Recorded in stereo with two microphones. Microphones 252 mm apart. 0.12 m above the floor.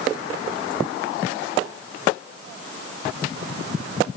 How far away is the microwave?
I don't hear a microwave.